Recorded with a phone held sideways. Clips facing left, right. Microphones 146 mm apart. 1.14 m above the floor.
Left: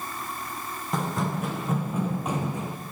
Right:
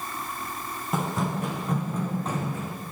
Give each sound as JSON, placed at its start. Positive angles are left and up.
{"t": 0.9, "sound": "running footsteps", "side_deg": -5, "distance_m": 3.0}